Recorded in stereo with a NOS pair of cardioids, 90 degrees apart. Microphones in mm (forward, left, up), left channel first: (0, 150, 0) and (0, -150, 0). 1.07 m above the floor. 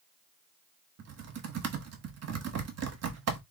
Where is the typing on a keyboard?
55° right, 1.3 m.